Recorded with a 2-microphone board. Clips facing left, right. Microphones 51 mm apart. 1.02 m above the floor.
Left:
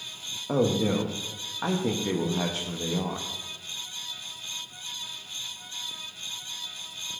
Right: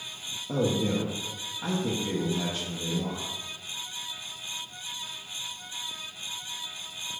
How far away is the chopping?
I don't hear chopping.